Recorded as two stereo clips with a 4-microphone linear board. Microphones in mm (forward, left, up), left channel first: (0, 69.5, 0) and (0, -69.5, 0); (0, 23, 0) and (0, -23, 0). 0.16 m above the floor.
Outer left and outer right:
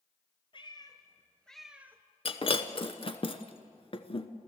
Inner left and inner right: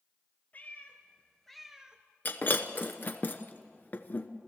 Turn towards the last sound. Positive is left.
turn(degrees=40)  # may be behind; listen again after turning